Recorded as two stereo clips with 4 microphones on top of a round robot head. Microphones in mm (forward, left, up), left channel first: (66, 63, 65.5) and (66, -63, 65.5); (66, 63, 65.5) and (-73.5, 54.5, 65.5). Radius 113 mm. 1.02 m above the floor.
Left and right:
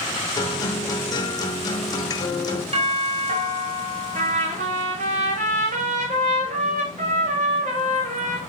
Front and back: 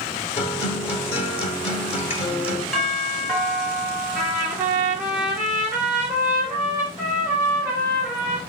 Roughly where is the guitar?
Ahead left.